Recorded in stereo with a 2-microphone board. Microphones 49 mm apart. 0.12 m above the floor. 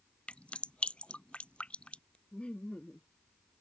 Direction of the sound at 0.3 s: 25° left (ahead or behind).